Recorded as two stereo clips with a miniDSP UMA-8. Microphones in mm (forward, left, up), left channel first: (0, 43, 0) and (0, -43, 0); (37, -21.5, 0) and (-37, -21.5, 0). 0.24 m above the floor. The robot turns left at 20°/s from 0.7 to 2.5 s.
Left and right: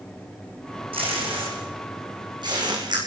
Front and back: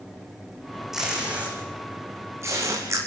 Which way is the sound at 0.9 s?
95° right.